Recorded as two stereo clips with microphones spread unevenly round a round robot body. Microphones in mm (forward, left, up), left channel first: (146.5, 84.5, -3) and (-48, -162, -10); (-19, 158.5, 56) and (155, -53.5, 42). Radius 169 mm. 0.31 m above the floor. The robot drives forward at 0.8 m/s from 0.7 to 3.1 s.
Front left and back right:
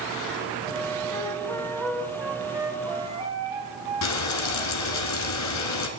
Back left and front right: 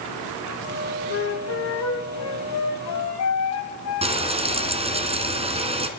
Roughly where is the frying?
Ahead.